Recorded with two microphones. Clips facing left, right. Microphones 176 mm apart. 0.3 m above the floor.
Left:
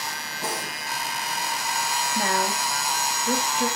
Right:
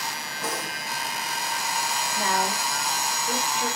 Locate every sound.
0.4 s breathing: 30° left (ahead or behind), 7.5 m
2.1 s a woman speaking: 45° left (ahead or behind), 5 m